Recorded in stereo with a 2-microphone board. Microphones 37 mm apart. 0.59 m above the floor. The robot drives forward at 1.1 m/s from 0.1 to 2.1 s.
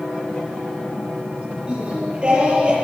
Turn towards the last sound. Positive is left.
turn(degrees=-25)  # may be behind; listen again after turning